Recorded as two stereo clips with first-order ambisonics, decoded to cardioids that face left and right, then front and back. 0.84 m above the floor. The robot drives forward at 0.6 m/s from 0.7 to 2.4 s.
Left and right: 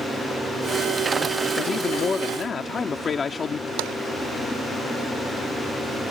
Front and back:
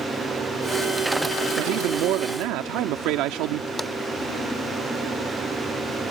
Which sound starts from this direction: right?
Tapping, at 3.8 s.